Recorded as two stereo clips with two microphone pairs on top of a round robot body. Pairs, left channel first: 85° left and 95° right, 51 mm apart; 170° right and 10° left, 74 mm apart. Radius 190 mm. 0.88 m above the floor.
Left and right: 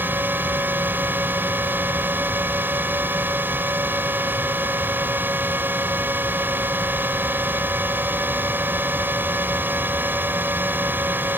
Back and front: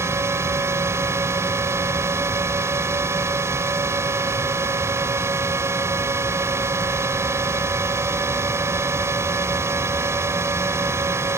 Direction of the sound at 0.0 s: 45° right.